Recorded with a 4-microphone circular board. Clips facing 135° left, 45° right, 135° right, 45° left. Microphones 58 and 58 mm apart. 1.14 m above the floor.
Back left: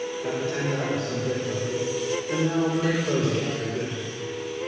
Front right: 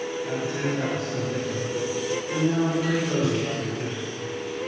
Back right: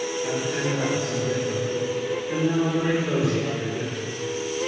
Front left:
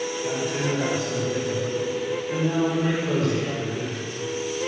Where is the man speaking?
155° left, 4.5 m.